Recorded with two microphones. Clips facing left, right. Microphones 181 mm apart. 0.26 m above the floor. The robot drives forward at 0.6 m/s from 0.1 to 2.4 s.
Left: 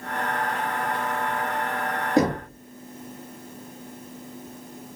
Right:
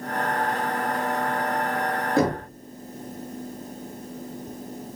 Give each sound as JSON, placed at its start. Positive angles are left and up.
{"t": 2.2, "sound": "knocking", "side_deg": 15, "distance_m": 2.5}